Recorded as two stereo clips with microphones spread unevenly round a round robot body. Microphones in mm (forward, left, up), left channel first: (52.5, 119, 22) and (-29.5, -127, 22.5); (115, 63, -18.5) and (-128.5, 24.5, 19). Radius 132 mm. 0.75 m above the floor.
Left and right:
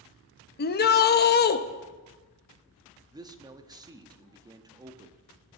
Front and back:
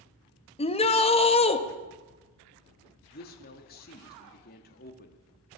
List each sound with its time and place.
0.6 s a shout: 45° left, 0.9 m
3.1 s a man speaking: 35° right, 1.1 m